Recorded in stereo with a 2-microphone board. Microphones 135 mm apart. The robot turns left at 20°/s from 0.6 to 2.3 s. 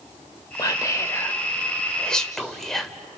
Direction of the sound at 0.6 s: 30° left (ahead or behind).